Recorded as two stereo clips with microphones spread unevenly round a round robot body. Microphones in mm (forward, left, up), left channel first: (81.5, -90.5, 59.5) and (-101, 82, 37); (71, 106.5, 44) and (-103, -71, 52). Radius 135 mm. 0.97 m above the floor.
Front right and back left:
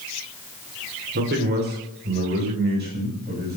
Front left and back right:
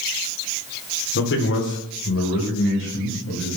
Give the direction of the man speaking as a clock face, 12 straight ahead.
9 o'clock.